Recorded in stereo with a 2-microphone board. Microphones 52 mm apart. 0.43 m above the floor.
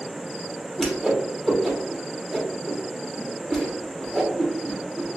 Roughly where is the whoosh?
Centre.